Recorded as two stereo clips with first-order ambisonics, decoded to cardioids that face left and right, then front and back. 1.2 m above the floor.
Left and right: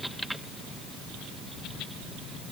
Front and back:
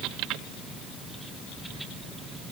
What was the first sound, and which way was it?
Only background noise.